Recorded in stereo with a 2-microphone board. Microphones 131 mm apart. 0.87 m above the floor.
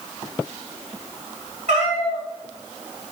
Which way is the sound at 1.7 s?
65° right (ahead or behind).